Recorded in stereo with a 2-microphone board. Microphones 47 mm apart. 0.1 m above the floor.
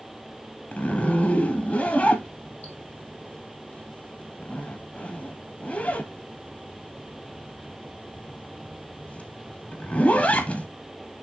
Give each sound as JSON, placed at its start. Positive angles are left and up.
{"t": 0.7, "sound": "a zipper", "side_deg": 35, "distance_m": 1.3}